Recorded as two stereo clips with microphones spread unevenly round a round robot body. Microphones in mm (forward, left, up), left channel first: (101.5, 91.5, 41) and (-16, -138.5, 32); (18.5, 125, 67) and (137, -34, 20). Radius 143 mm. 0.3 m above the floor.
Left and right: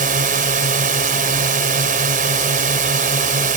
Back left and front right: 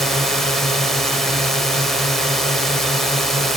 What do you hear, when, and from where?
0.0 s a drone: 120° right